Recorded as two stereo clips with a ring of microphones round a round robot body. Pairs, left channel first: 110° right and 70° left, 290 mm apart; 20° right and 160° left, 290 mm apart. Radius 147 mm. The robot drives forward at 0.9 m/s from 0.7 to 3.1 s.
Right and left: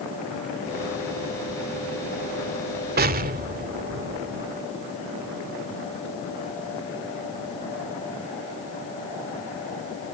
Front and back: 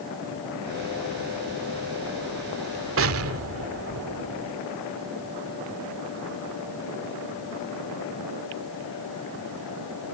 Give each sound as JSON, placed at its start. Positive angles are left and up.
{"t": 3.0, "sound": "an explosion", "azimuth_deg": 120}